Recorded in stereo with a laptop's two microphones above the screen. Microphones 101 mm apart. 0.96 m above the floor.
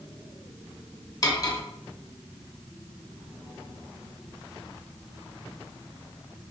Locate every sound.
1.2 s cutlery clinking: 35° left (ahead or behind), 0.7 m